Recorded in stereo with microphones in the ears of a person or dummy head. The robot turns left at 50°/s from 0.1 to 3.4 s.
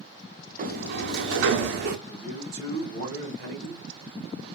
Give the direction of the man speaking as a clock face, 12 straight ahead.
2 o'clock.